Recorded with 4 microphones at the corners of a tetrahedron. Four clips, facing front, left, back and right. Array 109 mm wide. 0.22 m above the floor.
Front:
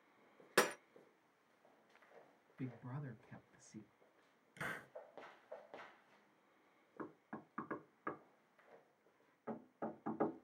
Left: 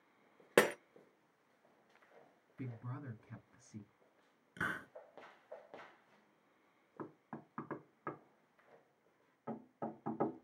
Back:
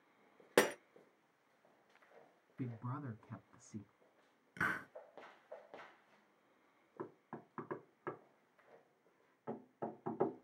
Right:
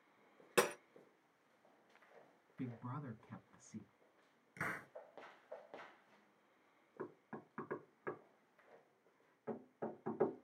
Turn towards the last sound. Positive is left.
turn(degrees=130)